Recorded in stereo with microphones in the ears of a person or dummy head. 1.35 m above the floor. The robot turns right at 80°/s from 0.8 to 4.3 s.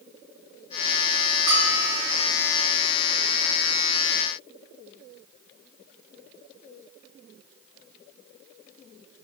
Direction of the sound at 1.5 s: 145° right.